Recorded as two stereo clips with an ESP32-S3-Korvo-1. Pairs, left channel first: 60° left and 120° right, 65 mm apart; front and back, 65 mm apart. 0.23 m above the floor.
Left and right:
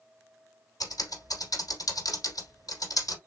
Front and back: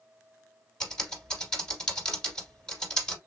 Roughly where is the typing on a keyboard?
Left.